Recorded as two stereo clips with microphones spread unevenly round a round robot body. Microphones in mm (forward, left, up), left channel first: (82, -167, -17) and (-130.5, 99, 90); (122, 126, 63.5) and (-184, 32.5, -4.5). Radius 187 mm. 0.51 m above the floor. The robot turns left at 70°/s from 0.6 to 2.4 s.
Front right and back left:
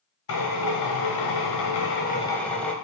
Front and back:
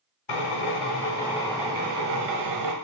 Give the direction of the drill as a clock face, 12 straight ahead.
12 o'clock.